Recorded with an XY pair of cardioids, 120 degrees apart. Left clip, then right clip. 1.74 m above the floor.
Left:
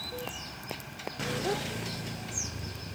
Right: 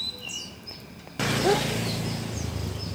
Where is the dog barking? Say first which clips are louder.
Right 10 dB; 55° right.